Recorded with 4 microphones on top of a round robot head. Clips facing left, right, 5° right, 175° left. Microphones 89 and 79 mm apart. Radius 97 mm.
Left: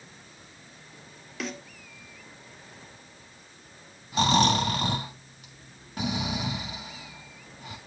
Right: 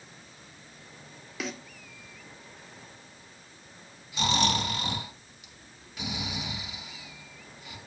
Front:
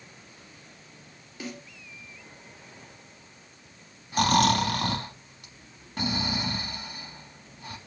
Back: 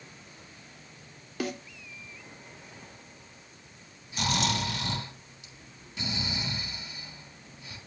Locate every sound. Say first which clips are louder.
1.4 s a snare drum: left 1 dB, back 5 dB; straight behind, 2.5 m
4.1 s snoring: left 5 dB, front 8 dB; 35° left, 3.5 m